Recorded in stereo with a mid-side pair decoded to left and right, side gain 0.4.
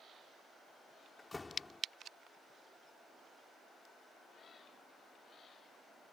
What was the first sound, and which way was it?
A door slam, 25° left.